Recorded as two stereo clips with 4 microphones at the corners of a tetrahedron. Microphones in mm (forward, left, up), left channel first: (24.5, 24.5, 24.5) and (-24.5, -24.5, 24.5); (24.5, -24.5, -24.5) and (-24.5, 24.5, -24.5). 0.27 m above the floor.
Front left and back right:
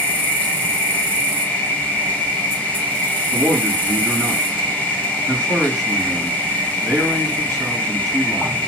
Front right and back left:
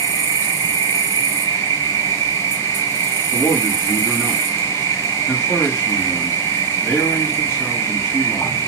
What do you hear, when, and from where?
0.0 s an insect: 20° right, 1.2 m
3.3 s a man speaking: 135° right, 1.9 m